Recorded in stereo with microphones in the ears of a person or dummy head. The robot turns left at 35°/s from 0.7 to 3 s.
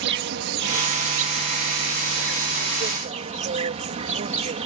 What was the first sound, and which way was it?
An insect, 60° right.